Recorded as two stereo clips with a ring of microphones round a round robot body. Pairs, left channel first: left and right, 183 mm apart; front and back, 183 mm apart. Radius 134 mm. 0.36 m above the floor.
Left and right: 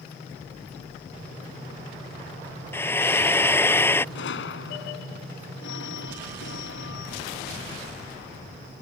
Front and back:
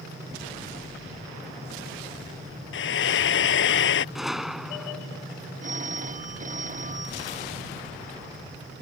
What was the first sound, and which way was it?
Frying, 10° left.